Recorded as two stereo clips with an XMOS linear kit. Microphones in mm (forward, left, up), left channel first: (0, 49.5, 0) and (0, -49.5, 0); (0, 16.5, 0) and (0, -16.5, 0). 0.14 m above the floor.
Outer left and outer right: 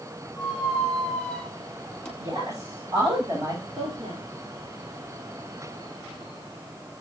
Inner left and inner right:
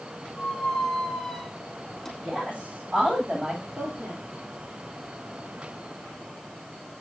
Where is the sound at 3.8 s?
70° right (ahead or behind), 4 m.